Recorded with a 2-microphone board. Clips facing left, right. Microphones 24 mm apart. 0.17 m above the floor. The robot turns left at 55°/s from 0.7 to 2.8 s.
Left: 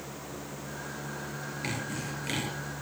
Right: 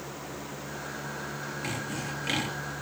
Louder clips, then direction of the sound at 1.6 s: Even; 20° left.